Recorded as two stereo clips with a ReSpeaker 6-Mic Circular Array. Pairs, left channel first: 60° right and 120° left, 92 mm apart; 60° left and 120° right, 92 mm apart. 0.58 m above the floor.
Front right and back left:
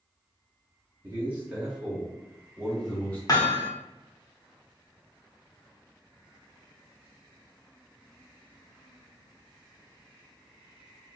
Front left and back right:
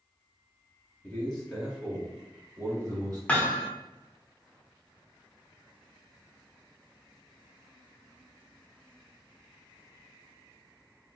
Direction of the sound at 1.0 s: 110° left.